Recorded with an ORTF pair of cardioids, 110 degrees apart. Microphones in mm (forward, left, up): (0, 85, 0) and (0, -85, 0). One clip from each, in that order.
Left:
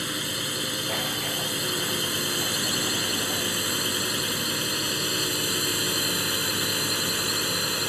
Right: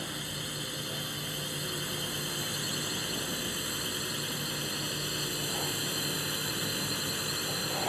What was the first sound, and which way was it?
A drone, 50° left.